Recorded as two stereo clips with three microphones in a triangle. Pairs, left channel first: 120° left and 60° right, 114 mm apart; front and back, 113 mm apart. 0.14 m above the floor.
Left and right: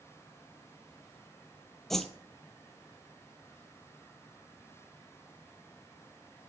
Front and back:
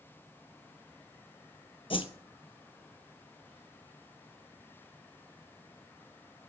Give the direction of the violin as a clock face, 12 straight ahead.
I don't hear a violin.